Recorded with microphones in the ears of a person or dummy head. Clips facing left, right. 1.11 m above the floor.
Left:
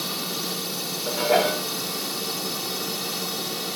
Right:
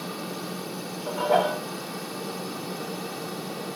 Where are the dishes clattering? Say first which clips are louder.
Left 2 dB; 35° left (ahead or behind).